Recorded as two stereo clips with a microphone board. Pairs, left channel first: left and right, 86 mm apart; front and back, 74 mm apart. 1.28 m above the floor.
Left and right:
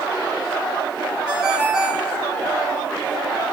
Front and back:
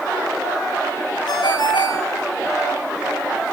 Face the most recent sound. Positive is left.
turn(degrees=-10)